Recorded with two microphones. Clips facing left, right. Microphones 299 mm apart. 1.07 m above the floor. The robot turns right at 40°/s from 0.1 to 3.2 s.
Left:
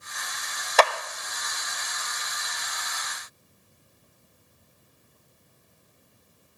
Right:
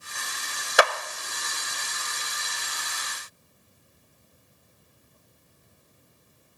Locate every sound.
0.8 s a clap: 15° right (ahead or behind), 0.5 m; by 0.9 s 10° right (ahead or behind), 0.5 m